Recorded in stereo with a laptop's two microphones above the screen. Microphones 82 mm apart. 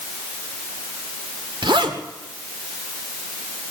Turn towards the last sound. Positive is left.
turn(degrees=-75)  # may be behind; listen again after turning